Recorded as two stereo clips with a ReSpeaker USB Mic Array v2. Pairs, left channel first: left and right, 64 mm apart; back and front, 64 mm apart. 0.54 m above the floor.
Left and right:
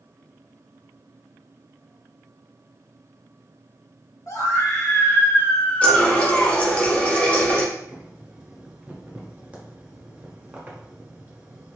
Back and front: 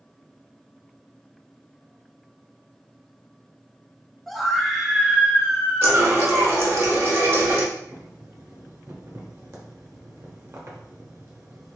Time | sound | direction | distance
4.3 | a scream | 95° left | 1.0 m
5.8 | a running tap | 30° left | 0.8 m
7.8 | boiling | 30° right | 0.9 m